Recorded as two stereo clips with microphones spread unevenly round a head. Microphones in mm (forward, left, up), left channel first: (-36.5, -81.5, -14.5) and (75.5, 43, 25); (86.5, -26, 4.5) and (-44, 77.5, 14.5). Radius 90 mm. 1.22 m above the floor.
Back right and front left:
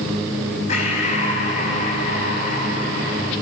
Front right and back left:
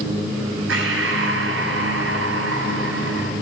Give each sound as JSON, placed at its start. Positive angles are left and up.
{"t": 0.7, "sound": "breathing", "azimuth_deg": 170, "distance_m": 6.0}